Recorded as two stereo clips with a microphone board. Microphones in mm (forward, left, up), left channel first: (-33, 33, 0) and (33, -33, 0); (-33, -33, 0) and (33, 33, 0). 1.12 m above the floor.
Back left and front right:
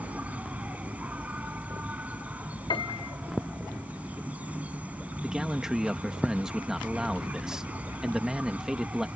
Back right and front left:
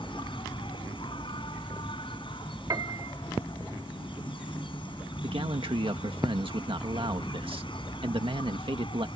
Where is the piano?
95° left.